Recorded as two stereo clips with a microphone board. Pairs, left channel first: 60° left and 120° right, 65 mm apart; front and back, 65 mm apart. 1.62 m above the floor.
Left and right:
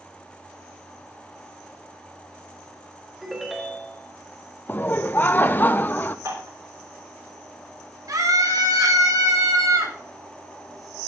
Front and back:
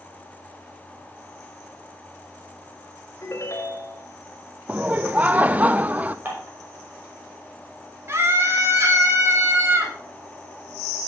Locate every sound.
3.2 s a ringtone: 35° right, 3.5 m
4.7 s laughter: 115° left, 1.0 m
6.2 s dishes clattering: 120° right, 5.5 m
8.1 s a scream: 130° right, 5 m